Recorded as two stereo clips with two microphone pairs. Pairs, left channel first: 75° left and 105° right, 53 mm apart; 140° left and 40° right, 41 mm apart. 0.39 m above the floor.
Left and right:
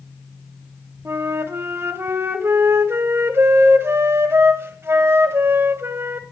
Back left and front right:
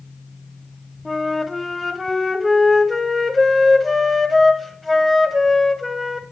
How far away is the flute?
About 1.3 m.